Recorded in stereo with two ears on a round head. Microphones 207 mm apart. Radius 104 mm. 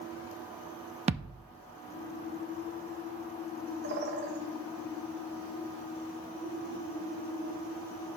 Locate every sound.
1.1 s a thud: 25° right (ahead or behind), 0.6 m
3.8 s a bird: 45° right (ahead or behind), 1.6 m